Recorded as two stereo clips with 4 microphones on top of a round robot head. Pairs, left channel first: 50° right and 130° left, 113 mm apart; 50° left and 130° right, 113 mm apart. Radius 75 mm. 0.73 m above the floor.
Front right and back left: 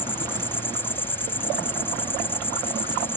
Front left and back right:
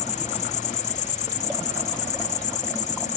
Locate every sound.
0.0 s an insect: 25° left